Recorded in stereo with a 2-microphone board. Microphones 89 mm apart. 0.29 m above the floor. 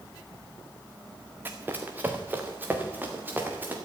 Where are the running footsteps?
25° right (ahead or behind), 1.8 m; by 3.8 s 20° right (ahead or behind), 3 m.